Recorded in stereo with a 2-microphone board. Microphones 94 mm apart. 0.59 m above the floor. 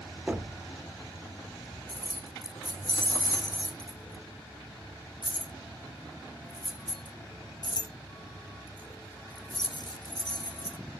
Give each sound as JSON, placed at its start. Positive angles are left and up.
{"t": 0.3, "sound": "knocking", "side_deg": -20, "distance_m": 0.7}
{"t": 1.9, "sound": "keys jangling", "side_deg": 50, "distance_m": 0.7}